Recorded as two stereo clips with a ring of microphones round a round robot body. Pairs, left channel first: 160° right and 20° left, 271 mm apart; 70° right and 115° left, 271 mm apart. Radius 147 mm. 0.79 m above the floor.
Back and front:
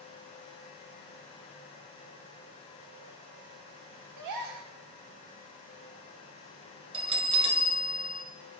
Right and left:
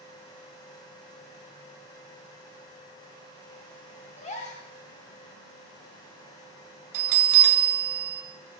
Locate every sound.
4.2 s a gasp: straight ahead, 1.0 m
6.9 s a bell: 95° left, 1.2 m